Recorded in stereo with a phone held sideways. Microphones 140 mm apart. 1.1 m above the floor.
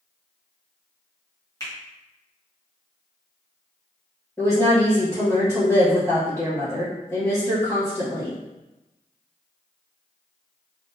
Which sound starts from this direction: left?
A finger snap, at 1.6 s.